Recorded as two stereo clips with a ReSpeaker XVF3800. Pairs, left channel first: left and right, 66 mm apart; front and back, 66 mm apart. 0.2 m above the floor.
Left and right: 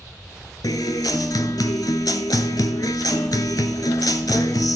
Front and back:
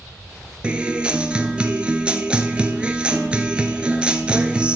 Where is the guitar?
105° left, 0.8 m.